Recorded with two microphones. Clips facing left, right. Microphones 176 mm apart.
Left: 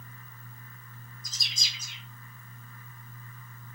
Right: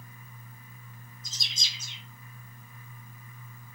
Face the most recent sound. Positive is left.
turn(degrees=-25)  # may be behind; listen again after turning